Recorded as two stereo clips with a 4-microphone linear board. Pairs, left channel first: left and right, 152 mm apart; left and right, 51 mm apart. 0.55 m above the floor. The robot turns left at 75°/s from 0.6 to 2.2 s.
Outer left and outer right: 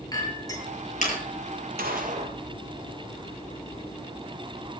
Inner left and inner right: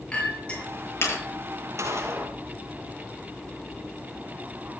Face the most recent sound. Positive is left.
turn(degrees=-130)